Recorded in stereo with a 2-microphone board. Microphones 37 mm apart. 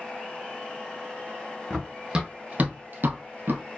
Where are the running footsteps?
10° right (ahead or behind), 1.1 m; by 3.6 s 60° right (ahead or behind), 0.8 m.